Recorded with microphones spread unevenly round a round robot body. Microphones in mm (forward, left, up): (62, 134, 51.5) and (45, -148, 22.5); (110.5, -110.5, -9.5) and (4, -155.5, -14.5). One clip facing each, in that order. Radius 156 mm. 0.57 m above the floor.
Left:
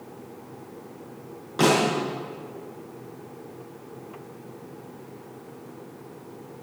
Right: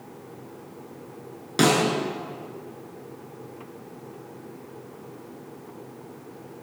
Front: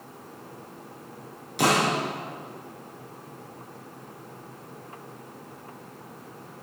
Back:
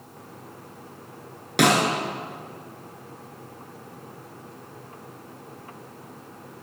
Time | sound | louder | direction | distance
1.6 | a snare drum | even, back 3 dB | 145° right | 6.5 m